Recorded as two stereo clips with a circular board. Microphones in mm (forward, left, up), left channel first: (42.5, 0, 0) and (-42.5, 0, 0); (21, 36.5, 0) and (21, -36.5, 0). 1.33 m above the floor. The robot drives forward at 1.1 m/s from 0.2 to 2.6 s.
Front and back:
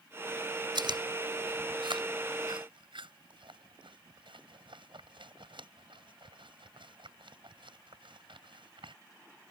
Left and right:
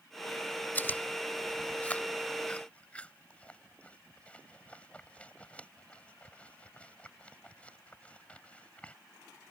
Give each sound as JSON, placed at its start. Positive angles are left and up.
{"t": 0.8, "sound": "chewing", "azimuth_deg": 155}